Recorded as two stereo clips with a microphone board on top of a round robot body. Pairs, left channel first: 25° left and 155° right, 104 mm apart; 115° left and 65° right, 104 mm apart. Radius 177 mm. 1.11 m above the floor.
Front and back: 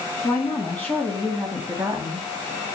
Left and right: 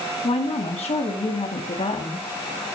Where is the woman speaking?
85° left, 2.5 m; by 2.3 s 120° left, 2 m.